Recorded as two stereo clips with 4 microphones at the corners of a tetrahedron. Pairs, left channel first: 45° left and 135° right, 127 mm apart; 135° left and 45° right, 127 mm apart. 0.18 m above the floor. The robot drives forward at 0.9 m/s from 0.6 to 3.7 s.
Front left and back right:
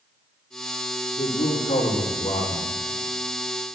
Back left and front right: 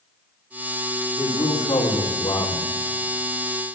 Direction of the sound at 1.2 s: 60° left.